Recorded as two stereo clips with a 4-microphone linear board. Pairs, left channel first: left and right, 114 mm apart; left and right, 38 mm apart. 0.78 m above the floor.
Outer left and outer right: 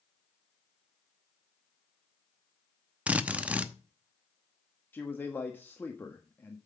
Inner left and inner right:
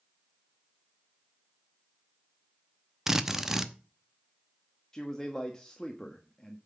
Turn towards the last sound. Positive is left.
turn(degrees=20)  # may be behind; listen again after turning